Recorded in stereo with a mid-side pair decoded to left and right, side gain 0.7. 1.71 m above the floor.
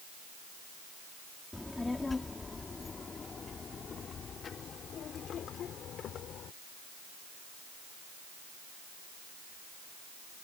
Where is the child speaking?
10° left; by 6.5 s 45° left.